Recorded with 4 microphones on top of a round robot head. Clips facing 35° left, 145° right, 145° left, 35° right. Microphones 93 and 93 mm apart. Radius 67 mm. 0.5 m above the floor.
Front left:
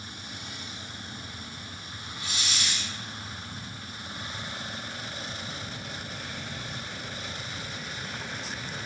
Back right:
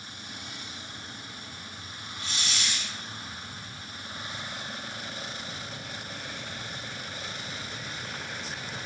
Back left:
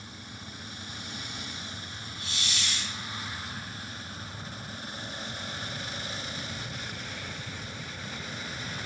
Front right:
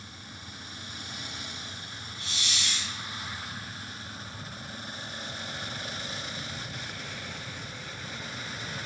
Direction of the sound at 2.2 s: 45° right.